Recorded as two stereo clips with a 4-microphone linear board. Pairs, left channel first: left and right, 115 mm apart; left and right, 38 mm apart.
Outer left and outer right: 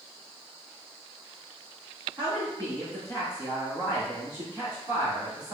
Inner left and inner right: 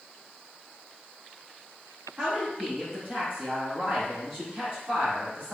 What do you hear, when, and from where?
2.2 s a woman speaking: 30° right (ahead or behind), 2.0 m